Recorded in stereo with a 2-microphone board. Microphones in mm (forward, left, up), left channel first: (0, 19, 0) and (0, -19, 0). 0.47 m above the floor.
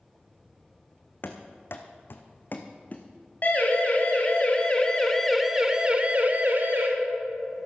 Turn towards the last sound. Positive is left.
turn(degrees=-60)  # may be behind; listen again after turning